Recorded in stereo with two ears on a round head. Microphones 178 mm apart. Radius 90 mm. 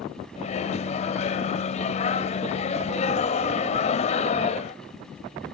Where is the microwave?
35° left (ahead or behind), 0.8 m.